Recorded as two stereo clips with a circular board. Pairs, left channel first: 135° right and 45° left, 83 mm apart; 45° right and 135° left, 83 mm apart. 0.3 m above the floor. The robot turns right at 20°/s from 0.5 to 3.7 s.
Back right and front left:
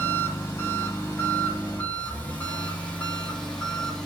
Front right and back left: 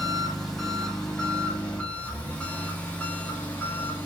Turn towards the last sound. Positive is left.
turn(degrees=-65)